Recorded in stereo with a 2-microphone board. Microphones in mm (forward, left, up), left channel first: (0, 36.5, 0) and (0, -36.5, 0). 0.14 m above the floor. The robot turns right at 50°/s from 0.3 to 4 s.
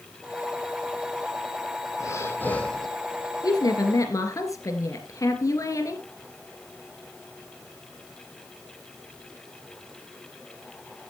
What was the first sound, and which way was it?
Breathing, 135° left.